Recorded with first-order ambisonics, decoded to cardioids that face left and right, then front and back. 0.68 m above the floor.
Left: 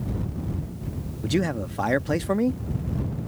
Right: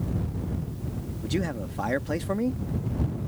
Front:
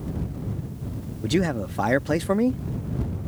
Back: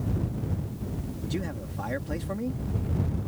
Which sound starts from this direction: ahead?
A man speaking, at 1.2 s.